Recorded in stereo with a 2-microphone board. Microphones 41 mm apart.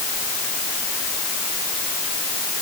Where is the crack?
No crack in this recording.